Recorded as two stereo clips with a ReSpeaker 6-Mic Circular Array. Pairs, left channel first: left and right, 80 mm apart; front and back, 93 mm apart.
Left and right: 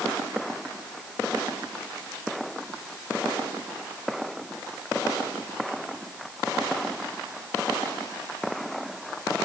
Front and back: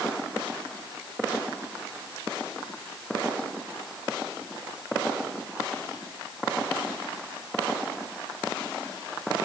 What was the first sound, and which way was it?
Only background noise.